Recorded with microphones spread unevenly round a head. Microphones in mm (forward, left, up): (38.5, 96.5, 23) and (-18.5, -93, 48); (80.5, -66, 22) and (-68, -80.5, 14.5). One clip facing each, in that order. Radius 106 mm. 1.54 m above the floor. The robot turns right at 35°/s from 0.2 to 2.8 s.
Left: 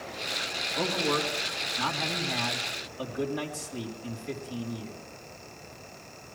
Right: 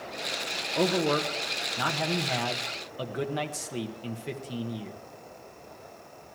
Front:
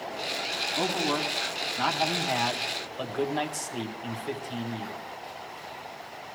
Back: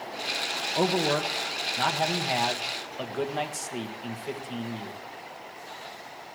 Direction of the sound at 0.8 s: 160° right.